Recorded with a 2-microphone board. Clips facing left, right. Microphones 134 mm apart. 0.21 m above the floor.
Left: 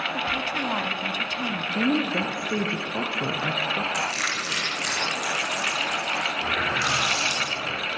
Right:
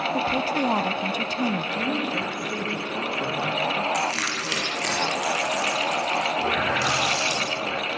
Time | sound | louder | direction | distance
0.1 | a woman speaking | right 7 dB | 35° right (ahead or behind) | 1.3 m
1.8 | a woman speaking | left 3 dB | 25° left (ahead or behind) | 3.5 m
3.9 | crushing | right 3 dB | 65° right (ahead or behind) | 7.5 m
6.4 | a running tap | right 4 dB | 70° right (ahead or behind) | 8 m